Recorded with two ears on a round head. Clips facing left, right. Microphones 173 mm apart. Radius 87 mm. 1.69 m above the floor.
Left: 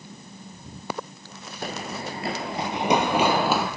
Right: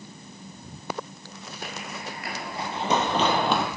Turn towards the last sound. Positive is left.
turn(degrees=5)  # may be behind; listen again after turning